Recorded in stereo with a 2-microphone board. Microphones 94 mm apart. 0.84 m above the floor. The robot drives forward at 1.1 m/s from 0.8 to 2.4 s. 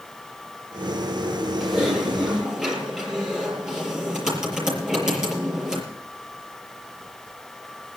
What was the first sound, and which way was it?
Typing on a keyboard, 5° right (ahead or behind).